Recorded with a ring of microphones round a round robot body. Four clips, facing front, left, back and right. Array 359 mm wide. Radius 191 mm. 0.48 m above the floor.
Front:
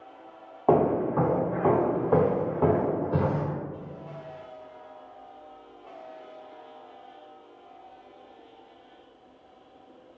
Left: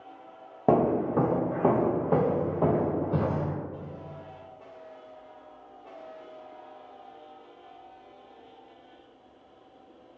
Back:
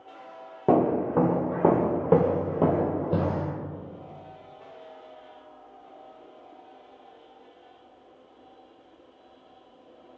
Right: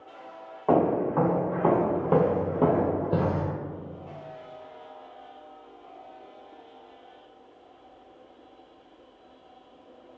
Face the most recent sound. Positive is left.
turn(degrees=-125)